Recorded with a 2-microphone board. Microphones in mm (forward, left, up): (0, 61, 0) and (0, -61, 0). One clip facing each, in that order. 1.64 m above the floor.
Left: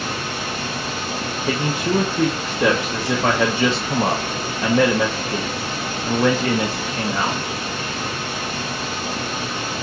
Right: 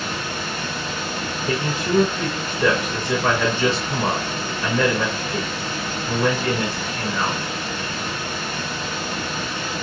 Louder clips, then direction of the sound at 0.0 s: Left 1 dB; 70° left (ahead or behind).